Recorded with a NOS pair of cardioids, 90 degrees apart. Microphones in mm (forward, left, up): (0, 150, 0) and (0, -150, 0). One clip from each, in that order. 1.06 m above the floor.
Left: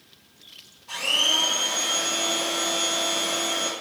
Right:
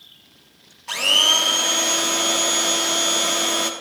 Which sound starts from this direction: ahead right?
A blender, at 0.9 s.